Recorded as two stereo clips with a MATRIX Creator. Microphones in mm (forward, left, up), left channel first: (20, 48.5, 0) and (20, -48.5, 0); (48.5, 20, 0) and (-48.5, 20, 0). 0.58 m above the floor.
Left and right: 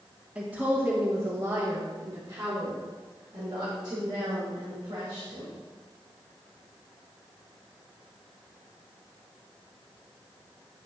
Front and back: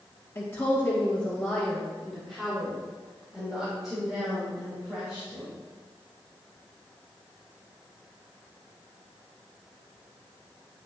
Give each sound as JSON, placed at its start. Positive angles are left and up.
{"t": 0.3, "sound": "a woman speaking", "azimuth_deg": -30, "distance_m": 1.1}